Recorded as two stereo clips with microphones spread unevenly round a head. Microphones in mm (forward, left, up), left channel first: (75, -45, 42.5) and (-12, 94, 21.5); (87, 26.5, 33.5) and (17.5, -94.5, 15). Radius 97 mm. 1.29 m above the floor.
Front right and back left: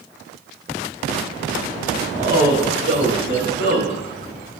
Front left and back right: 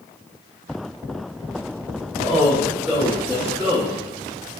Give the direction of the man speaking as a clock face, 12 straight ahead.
6 o'clock.